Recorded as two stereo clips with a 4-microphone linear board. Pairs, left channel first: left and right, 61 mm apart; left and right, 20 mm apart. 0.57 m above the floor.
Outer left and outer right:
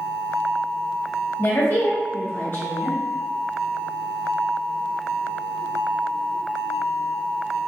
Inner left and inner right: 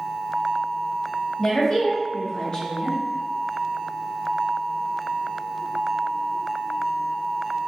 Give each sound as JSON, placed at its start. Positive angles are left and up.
{"t": 1.4, "sound": "a woman speaking", "side_deg": 45, "distance_m": 1.1}